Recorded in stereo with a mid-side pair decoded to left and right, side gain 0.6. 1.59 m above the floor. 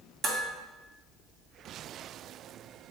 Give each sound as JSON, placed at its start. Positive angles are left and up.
{"t": 0.2, "sound": "dishes clattering", "azimuth_deg": -45, "distance_m": 1.9}